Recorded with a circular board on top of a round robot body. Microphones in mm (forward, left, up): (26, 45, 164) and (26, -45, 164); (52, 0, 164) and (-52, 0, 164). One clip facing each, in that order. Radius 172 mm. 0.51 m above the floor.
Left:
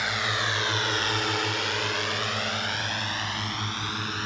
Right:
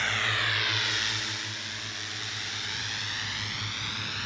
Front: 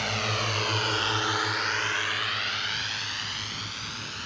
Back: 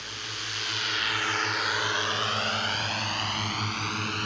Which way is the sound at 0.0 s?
15° left.